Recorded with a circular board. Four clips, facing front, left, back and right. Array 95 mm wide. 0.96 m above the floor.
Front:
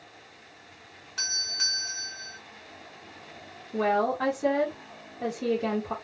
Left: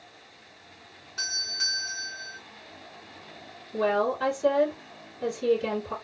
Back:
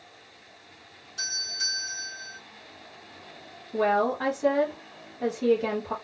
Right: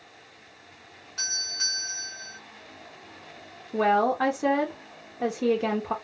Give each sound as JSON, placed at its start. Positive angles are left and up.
{"t": 1.2, "sound": "a doorbell", "azimuth_deg": -10, "distance_m": 2.0}
{"t": 3.7, "sound": "a woman speaking", "azimuth_deg": -90, "distance_m": 1.1}